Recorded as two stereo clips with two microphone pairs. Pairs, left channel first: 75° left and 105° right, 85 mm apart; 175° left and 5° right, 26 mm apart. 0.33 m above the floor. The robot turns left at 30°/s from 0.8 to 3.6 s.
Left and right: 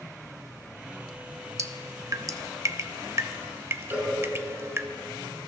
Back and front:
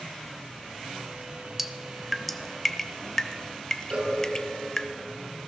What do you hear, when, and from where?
1.6 s dripping: 80° right, 0.6 m; by 4.9 s 145° right, 0.6 m
3.9 s a cowbell: 35° right, 4 m